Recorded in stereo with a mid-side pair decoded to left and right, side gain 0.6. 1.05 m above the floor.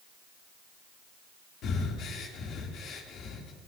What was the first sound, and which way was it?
Breathing, 60° left.